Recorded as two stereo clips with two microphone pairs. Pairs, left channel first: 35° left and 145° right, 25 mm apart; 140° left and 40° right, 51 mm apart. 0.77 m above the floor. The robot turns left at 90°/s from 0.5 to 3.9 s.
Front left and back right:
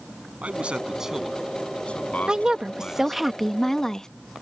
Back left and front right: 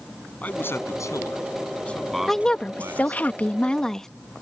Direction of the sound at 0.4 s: 160° right.